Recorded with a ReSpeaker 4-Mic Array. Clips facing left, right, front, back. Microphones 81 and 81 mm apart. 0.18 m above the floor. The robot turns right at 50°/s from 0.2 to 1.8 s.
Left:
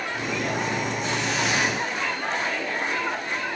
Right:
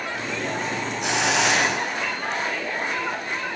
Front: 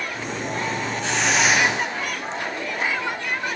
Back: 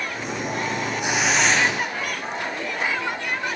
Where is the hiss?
105° right, 1.9 m; by 2.4 s 65° right, 1.9 m.